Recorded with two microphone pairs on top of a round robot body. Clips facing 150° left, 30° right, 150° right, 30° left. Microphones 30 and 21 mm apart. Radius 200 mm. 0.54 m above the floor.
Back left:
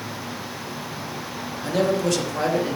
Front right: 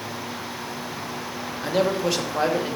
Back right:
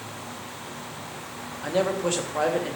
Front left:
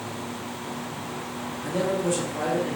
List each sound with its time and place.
1.6 s a man speaking: 100° right, 2.5 m